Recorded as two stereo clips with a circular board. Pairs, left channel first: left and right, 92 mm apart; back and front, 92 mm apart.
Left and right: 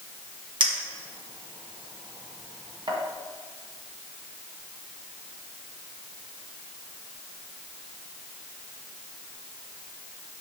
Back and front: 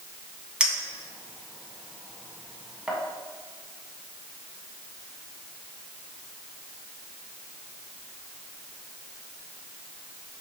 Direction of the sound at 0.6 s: 80° right.